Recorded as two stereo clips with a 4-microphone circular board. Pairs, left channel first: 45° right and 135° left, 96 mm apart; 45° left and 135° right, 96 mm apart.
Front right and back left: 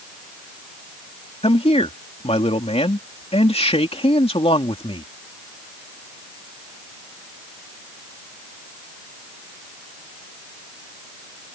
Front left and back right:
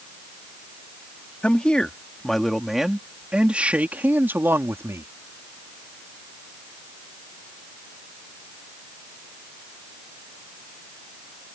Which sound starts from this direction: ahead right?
A man speaking, at 1.4 s.